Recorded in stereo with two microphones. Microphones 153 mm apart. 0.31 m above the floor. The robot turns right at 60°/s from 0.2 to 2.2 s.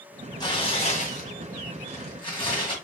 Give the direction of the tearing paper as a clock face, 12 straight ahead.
11 o'clock.